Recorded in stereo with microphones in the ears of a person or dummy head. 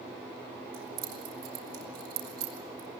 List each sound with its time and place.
0.7 s keys jangling: 75° right (ahead or behind), 4.5 m